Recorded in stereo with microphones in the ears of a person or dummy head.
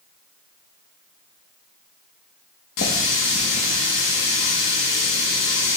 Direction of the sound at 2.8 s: 55° left (ahead or behind).